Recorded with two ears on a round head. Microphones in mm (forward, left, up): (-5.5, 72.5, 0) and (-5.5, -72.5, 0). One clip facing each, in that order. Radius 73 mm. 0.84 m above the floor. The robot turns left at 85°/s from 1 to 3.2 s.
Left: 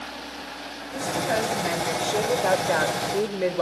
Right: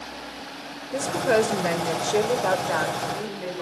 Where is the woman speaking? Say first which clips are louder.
Right 4 dB; 65° right, 2.5 m; by 3.6 s 110° left, 2.5 m.